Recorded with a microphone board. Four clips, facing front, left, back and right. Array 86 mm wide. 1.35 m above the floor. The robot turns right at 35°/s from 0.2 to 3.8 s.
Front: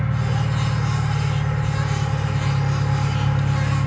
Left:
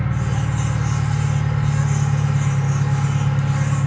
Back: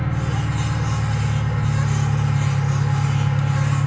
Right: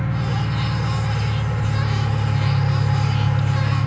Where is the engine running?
170° right, 2 m; by 3.9 s 45° right, 2 m.